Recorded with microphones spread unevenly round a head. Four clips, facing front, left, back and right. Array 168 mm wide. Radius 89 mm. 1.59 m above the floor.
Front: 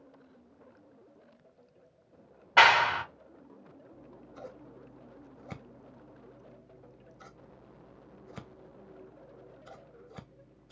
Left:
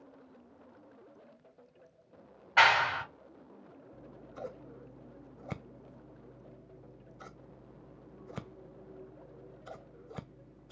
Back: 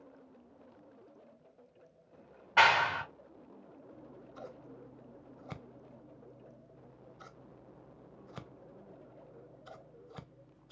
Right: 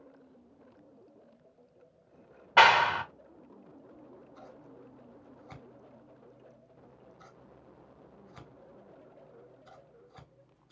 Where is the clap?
50° right, 1.5 m.